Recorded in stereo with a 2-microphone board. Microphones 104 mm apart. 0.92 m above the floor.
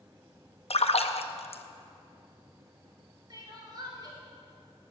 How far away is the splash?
About 0.8 m.